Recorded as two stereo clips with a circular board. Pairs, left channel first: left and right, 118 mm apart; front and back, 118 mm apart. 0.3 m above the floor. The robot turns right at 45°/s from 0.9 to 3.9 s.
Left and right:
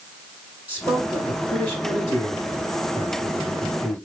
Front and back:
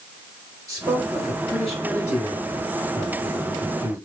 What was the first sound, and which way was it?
A man speaking, 155° right.